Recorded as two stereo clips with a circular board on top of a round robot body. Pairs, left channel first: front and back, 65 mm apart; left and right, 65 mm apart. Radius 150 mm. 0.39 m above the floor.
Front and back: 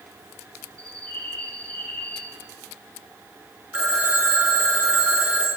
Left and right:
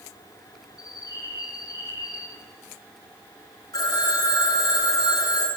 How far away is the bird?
About 3.5 m.